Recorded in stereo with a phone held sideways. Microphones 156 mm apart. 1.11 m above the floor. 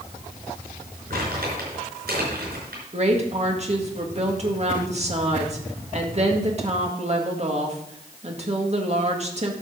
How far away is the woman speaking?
About 1.8 m.